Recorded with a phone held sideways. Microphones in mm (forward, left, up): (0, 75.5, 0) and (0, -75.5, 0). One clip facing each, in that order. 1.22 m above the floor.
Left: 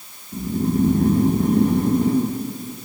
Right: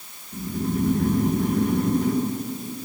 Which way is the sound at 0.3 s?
30° left (ahead or behind).